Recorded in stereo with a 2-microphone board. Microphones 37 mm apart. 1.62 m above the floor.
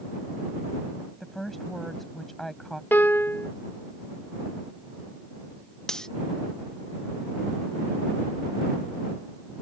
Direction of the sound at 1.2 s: 5° left (ahead or behind).